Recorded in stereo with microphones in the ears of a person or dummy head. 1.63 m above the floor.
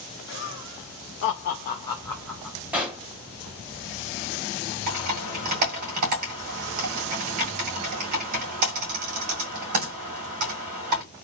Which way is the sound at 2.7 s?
10° right (ahead or behind).